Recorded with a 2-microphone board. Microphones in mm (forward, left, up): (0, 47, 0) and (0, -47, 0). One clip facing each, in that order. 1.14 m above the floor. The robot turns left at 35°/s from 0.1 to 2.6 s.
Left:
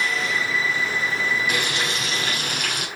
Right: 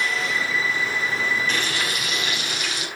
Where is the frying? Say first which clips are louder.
Left 1 dB; 170° left, 5 m; by 2.9 s 130° left, 5 m.